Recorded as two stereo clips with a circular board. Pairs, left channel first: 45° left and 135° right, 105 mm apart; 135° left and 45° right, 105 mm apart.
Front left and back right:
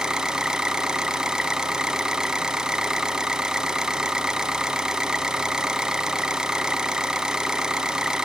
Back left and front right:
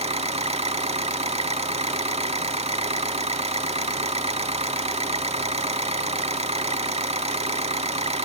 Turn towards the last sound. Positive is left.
turn(degrees=-50)